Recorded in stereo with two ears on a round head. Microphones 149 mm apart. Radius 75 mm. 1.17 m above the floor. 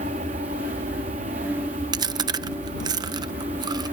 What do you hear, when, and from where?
0.0 s an aircraft: 45° right (ahead or behind)
1.9 s chewing: 25° right (ahead or behind)